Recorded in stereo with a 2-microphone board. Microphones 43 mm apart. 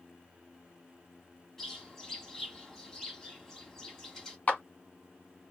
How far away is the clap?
About 1.3 m.